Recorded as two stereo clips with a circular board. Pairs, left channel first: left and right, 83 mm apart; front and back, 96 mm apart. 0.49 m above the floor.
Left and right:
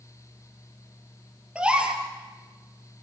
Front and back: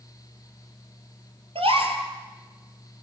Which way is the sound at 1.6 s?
165° right.